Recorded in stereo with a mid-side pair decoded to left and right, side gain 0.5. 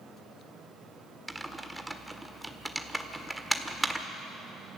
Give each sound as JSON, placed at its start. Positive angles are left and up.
{"t": 1.3, "sound": "typing on a keyboard", "azimuth_deg": -10, "distance_m": 1.6}